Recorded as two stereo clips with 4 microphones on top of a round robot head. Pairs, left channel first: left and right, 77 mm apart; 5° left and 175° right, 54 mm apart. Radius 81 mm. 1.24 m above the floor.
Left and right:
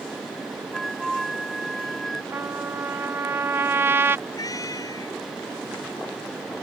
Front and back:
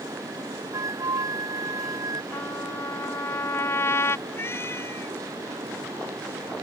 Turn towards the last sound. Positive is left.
turn(degrees=45)